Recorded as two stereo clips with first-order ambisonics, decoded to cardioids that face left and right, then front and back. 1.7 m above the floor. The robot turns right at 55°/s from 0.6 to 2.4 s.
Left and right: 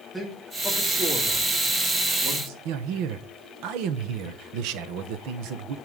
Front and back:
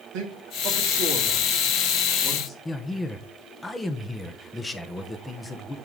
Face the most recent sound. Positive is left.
turn(degrees=-80)